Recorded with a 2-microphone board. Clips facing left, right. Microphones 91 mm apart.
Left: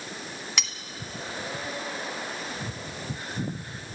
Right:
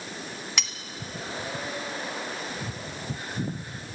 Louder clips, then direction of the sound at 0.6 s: Even; centre (ahead or behind).